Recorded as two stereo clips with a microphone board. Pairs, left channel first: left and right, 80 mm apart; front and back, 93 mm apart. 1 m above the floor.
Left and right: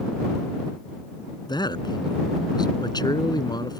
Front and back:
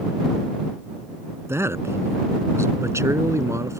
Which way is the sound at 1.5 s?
120° left.